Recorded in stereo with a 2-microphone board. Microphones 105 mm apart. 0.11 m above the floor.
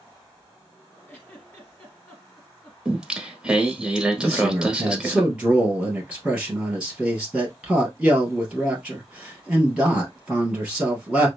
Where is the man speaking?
10° right (ahead or behind), 2.5 m.